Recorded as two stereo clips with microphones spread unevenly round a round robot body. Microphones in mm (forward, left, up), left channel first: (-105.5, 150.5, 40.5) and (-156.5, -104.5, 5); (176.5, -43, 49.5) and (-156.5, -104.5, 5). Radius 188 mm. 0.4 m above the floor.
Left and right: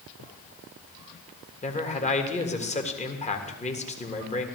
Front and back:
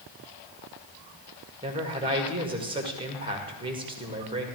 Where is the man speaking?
135° left, 1.6 m.